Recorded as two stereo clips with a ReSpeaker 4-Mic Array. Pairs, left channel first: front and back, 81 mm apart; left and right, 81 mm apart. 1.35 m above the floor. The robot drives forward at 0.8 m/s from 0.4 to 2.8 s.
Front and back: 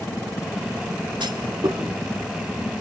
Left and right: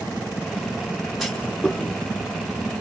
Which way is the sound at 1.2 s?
Straight behind.